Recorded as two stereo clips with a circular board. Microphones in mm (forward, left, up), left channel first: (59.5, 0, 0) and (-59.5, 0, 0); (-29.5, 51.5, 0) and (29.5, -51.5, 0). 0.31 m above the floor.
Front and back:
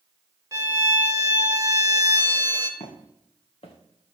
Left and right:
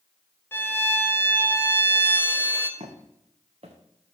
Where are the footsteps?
30° right, 1.6 m.